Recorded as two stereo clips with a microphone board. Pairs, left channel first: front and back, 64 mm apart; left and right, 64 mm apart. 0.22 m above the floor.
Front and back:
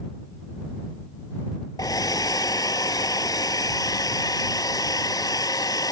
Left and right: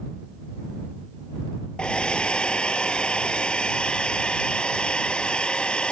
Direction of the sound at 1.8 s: 15° left.